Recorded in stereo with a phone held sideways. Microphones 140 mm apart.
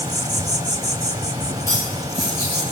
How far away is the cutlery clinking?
About 5.5 m.